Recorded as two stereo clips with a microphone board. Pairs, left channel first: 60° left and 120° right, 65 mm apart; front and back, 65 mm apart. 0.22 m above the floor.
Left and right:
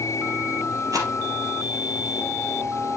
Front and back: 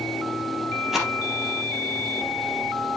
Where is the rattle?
95° right, 2.5 m.